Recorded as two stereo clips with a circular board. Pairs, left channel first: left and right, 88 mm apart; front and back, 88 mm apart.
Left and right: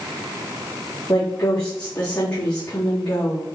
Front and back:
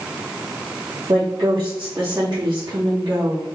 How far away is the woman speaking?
About 3 m.